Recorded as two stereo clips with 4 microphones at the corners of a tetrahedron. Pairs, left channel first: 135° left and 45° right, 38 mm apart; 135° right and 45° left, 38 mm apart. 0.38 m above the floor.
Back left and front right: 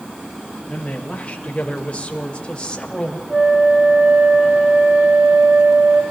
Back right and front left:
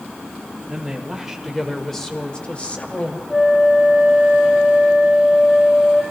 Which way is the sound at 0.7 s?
90° left.